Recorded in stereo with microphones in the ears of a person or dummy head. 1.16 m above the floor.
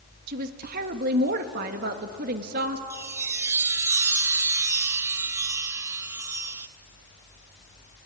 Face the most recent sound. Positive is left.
turn(degrees=-15)  # may be behind; listen again after turning